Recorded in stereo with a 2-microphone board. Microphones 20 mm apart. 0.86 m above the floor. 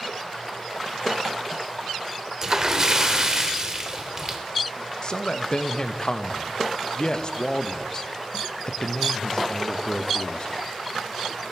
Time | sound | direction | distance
2.4 | a splash | 25° right (ahead or behind) | 1.1 m
5.0 | a man speaking | 40° left (ahead or behind) | 0.5 m